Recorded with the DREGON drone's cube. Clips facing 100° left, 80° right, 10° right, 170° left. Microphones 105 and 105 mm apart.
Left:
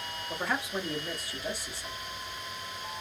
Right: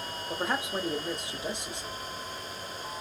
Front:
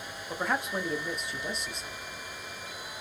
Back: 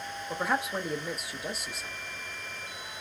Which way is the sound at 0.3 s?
105° right.